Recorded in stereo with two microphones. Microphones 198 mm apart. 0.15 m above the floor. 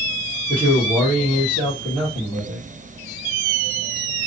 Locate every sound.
0.5 s a man speaking: 5° right (ahead or behind), 3 m